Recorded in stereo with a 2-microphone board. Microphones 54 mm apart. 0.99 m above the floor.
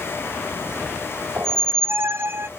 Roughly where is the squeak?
Right.